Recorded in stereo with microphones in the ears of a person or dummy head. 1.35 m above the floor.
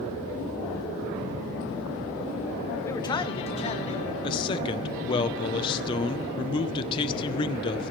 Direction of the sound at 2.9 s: 15° left (ahead or behind).